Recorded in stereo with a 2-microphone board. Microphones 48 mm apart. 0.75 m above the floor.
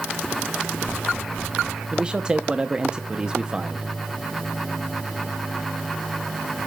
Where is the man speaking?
20° right (ahead or behind), 0.7 m.